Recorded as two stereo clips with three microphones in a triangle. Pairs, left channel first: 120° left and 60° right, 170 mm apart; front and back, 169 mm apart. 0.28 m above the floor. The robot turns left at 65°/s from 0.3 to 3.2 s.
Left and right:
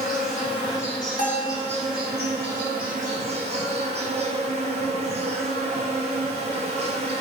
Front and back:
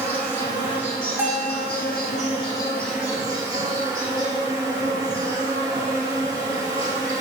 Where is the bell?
105° left, 1.3 m; by 1.6 s 80° left, 1.3 m.